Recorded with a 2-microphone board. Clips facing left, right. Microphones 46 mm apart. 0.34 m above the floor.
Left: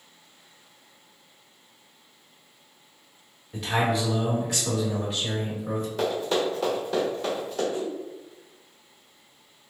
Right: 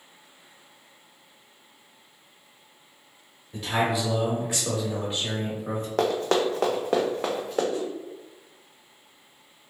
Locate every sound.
3.5 s a man speaking: 5° left (ahead or behind), 1.4 m; by 5.9 s 45° right (ahead or behind), 1.7 m
6.0 s running footsteps: 70° right (ahead or behind), 0.8 m; by 7.6 s 80° right, 1.6 m
7.7 s a whoosh: 30° left (ahead or behind), 0.9 m